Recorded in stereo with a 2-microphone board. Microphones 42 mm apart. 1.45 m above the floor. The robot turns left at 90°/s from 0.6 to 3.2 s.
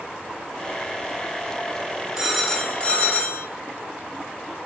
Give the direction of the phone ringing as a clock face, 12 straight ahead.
5 o'clock.